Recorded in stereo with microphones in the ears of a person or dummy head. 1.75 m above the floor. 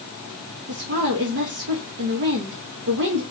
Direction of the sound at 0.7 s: 50° right (ahead or behind).